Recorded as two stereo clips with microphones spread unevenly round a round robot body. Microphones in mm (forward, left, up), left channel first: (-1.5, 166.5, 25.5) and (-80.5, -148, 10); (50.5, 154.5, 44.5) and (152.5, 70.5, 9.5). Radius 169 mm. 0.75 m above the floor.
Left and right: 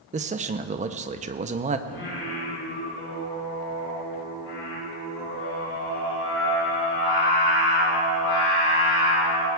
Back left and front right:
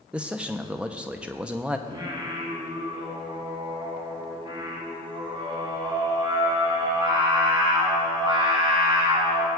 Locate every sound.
0.1 s a man speaking: 70° right, 0.5 m
1.9 s singing: 20° left, 4.5 m